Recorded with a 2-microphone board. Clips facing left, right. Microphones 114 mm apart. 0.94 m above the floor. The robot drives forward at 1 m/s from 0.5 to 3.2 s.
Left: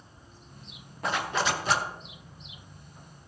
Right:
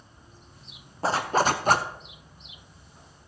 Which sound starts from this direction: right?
A zipper, at 1.0 s.